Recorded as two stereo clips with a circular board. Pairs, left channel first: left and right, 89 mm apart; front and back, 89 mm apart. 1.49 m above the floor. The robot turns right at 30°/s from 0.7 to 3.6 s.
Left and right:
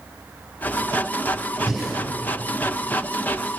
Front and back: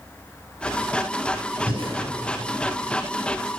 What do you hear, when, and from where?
1.7 s breathing: straight behind, 5.5 m; by 1.9 s 175° right, 5.5 m